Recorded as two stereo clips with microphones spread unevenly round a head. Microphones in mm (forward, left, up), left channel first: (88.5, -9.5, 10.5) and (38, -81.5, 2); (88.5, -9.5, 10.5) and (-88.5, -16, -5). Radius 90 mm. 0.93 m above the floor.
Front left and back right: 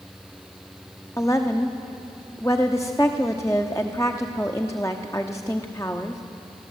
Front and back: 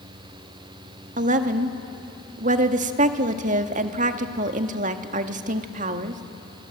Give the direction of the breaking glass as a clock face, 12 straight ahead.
I don't hear breaking glass.